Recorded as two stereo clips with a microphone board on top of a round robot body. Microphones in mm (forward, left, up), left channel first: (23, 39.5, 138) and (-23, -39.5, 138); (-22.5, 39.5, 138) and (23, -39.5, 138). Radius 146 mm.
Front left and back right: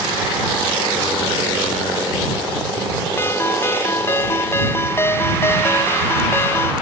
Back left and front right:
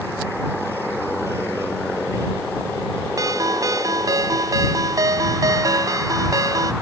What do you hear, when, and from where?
3.2 s a ringtone: 5° right